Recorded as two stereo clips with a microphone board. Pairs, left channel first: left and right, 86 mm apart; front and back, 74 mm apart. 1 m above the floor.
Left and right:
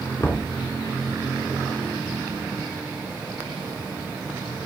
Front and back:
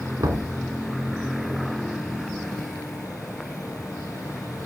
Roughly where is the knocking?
Behind left.